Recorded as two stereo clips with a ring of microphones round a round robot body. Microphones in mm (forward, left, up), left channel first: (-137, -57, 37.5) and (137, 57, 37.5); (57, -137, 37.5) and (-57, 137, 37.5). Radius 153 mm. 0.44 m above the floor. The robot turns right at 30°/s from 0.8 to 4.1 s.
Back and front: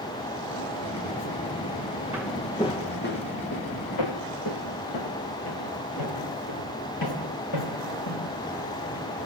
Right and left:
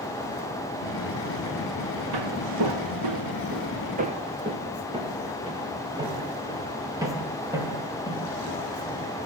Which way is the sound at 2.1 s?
105° left.